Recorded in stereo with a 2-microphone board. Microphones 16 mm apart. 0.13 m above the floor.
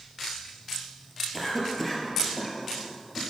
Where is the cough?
15° left (ahead or behind), 3 m.